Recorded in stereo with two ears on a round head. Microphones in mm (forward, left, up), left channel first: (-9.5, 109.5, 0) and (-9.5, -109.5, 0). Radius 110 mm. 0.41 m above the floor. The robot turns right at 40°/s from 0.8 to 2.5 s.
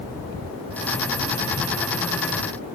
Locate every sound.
Only background noise.